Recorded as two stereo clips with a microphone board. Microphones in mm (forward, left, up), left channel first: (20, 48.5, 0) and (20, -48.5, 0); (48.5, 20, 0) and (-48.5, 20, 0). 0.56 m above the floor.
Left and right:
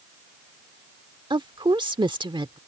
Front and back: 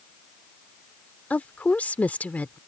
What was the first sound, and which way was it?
A woman speaking, 70° right.